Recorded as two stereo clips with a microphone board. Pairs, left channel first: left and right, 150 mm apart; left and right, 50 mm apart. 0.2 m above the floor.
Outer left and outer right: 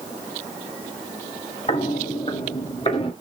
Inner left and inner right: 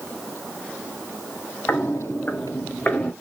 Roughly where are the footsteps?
Left.